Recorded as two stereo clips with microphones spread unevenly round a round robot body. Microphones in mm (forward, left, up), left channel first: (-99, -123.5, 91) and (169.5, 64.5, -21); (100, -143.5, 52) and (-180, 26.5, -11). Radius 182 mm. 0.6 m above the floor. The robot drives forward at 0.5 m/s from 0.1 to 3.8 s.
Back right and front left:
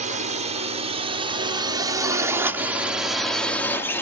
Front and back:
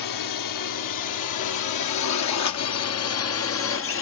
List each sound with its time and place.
0.0 s a drone: 10° right; by 4.0 s 30° right